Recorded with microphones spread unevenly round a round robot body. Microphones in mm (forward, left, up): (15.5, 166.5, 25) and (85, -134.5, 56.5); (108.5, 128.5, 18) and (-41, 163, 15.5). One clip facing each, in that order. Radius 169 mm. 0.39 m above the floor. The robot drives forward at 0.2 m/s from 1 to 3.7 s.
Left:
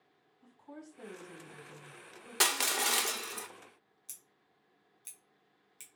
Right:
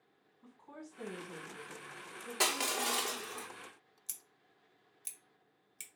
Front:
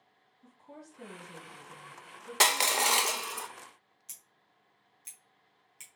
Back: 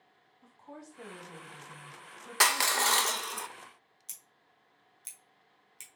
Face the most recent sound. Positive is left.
turn(degrees=-160)